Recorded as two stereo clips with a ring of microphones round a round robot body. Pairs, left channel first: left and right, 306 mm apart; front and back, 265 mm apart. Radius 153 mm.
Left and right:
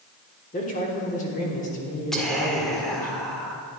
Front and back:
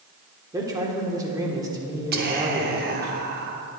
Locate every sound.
0.5 s a man speaking: 120° left, 1.3 m
2.1 s whispering: 175° left, 0.8 m